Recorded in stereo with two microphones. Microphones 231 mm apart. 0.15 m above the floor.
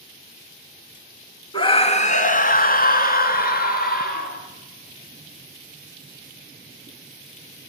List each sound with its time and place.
1.5 s a scream: 20° left (ahead or behind), 1.1 m; by 4.4 s 40° left (ahead or behind), 2.5 m